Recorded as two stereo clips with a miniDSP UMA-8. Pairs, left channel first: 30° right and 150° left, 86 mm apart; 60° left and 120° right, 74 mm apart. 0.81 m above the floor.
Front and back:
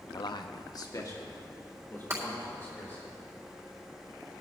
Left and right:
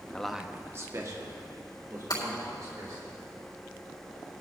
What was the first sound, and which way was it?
A man speaking, 10° right.